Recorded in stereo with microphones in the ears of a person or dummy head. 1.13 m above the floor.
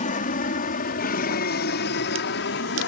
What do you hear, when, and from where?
0.0 s an aircraft: 40° left (ahead or behind); by 2.9 s 60° left (ahead or behind)